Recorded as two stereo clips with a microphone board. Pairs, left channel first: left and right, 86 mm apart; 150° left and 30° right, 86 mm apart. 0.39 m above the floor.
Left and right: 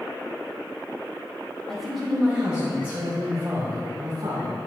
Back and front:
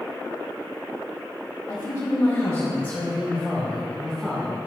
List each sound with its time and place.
1.7 s a woman speaking: 175° left, 1.6 m; by 4.7 s 125° right, 2.5 m